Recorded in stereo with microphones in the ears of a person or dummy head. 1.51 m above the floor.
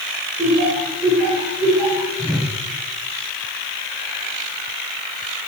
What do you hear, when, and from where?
0.4 s laughter: centre (ahead or behind), 2 m; by 2.1 s 25° left (ahead or behind), 4 m
2.2 s a whoosh: 5° left (ahead or behind), 0.8 m